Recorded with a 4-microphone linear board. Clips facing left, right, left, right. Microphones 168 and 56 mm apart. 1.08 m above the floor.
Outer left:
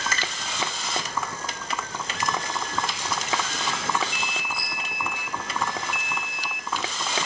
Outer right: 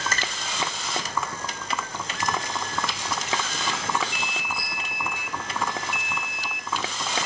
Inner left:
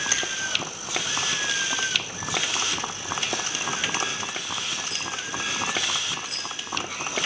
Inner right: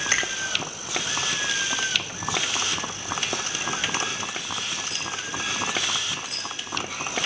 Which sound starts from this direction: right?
A finger snap, at 0.1 s.